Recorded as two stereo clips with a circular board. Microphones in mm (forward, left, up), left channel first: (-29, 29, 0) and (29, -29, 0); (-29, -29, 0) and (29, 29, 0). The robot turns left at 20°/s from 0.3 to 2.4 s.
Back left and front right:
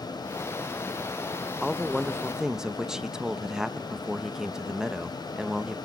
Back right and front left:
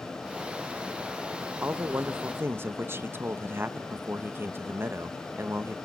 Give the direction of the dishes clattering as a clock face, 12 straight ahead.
No dishes clattering in this recording.